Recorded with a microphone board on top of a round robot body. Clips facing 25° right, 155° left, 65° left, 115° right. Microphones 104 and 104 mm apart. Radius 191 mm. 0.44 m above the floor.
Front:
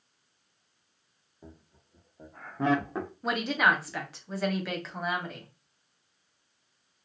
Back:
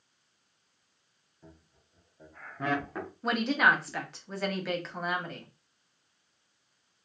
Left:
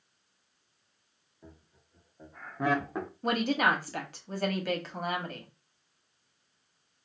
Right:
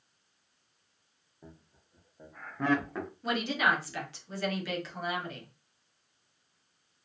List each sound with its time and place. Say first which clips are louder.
1.4 s laughter: front 4 dB, right 1 dB; 45° right, 1.3 m; by 3.1 s 30° left, 1.0 m
3.2 s a woman speaking: back 1 dB, left 2 dB; 65° left, 1.1 m